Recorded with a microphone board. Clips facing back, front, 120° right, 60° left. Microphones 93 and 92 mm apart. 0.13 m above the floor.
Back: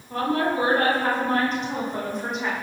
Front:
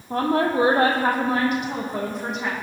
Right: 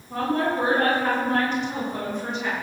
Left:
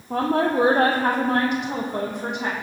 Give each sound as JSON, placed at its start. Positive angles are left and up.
{"t": 0.1, "sound": "a woman speaking", "azimuth_deg": 55, "distance_m": 4.0}